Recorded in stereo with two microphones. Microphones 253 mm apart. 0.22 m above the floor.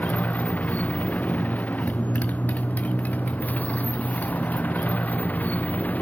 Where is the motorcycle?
5° left (ahead or behind).